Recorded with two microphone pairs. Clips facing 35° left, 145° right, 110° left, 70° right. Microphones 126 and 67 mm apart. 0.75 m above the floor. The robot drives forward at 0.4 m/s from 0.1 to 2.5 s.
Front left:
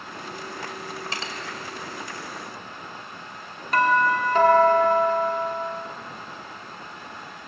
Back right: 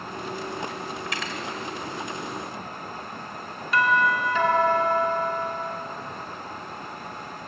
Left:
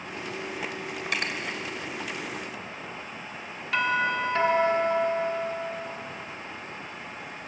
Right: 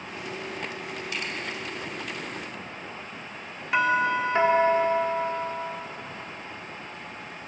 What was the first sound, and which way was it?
Cutlery clinking, 90° left.